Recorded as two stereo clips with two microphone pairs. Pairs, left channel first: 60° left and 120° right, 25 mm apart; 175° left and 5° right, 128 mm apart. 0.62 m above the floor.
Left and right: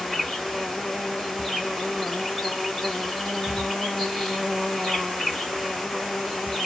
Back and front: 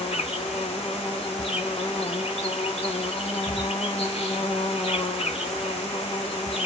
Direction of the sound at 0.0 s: 135° left.